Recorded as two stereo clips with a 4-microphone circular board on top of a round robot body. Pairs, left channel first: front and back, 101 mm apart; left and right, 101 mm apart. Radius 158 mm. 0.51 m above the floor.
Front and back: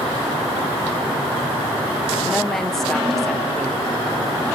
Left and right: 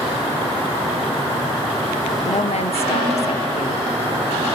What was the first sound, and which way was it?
A woman speaking, 85° left.